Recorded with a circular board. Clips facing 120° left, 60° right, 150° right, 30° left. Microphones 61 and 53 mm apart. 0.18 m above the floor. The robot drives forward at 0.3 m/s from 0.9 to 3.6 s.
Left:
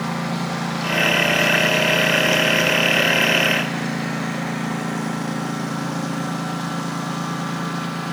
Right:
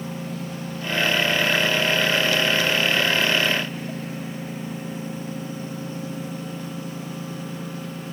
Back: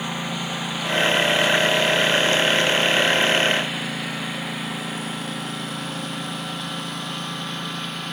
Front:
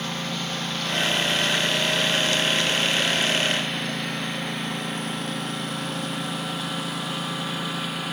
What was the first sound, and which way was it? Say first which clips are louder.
A lawn mower: left 7 dB, back 2 dB; 130° left.